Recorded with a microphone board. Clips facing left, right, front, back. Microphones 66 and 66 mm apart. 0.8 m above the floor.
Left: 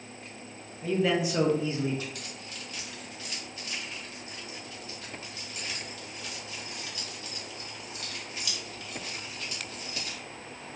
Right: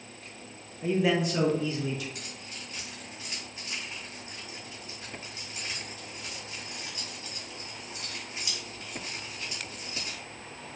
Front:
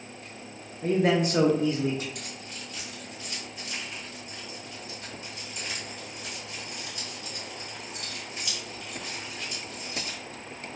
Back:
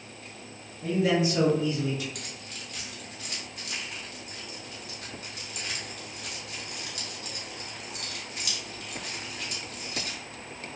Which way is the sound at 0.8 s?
30° right.